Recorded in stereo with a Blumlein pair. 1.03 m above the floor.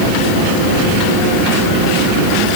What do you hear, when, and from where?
Only background noise.